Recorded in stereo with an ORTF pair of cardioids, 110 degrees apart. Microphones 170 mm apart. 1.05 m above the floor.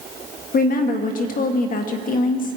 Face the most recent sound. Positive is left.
turn(degrees=55)